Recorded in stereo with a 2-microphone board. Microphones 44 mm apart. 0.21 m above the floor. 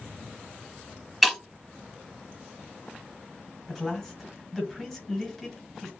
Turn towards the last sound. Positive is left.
turn(degrees=5)  # may be behind; listen again after turning